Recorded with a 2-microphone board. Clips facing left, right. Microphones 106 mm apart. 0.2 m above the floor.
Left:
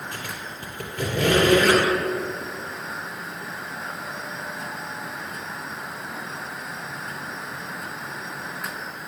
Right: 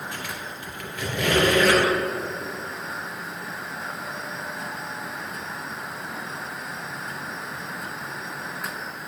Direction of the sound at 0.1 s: 40° left (ahead or behind).